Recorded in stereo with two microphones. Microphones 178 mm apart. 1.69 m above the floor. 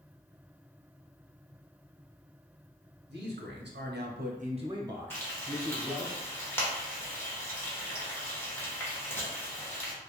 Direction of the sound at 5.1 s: 15° left (ahead or behind).